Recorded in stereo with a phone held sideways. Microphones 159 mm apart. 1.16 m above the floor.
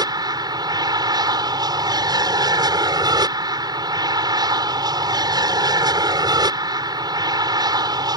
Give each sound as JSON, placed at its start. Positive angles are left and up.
{"t": 0.0, "sound": "an aircraft", "side_deg": -25}